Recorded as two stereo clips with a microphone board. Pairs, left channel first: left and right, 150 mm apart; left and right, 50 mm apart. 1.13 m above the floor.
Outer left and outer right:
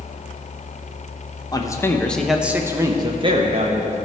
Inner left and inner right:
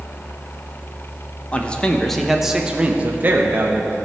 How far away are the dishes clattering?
I don't hear dishes clattering.